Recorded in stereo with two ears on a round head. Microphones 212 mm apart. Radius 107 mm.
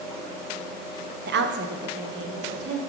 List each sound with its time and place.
1.3 s a woman speaking: 50° right (ahead or behind), 0.6 m